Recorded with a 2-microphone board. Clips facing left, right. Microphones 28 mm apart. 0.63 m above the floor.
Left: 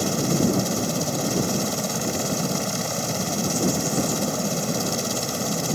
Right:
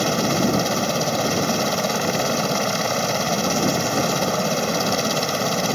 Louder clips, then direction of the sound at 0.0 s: Right 3 dB; 35° right (ahead or behind).